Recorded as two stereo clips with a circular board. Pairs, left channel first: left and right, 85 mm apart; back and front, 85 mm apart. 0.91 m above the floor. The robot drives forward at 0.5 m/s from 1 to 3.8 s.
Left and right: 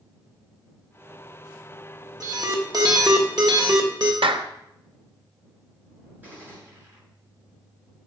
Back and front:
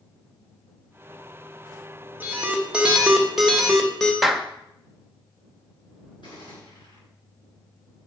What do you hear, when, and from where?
2.2 s an alarm: 65° right, 1.8 m; by 4.1 s 95° right, 1.7 m
4.2 s a clap: 90° right, 0.7 m
6.2 s a gunshot: 155° right, 6 m